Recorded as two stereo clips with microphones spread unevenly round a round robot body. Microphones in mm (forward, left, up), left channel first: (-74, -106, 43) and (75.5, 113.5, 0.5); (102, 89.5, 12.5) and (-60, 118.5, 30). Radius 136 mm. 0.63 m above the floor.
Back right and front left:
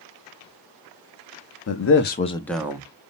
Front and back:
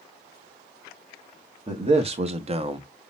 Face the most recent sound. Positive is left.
turn(degrees=115)